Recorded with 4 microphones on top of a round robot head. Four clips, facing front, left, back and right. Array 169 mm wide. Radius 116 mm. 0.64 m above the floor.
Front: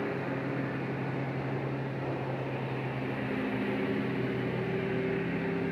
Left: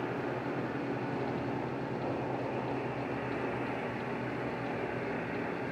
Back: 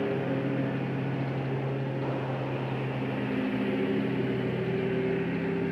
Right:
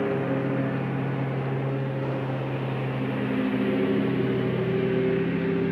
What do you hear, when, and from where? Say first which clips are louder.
0.0 s a lawn mower: right 9 dB, back 4 dB; 110° right; by 5.7 s 100° right